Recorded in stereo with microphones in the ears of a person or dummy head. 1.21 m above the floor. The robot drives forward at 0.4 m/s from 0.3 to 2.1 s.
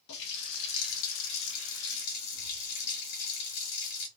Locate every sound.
0.1 s a running tap: 65° left (ahead or behind), 0.8 m; by 4.1 s 55° left (ahead or behind), 0.9 m